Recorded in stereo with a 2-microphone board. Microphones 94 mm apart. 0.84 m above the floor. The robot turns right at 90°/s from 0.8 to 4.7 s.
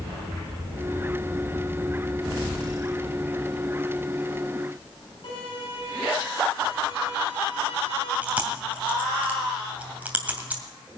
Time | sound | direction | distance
5.2 | a violin | 60° left (ahead or behind) | 9 m
8.2 | chewing | 15° right (ahead or behind) | 2 m